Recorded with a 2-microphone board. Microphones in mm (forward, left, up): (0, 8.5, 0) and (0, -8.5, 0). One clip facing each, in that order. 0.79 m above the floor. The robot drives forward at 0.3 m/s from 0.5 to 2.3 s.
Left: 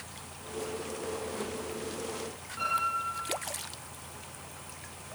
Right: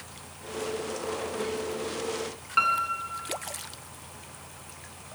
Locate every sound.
2.6 s a piano: 60° right (ahead or behind), 4 m